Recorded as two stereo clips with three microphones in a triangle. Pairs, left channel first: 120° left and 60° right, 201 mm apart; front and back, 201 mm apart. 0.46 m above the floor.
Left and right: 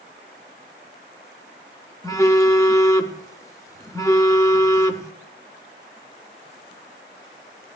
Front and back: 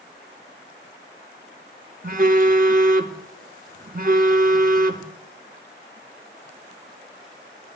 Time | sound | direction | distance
2.0 | a phone buzzing | 170° right | 0.7 m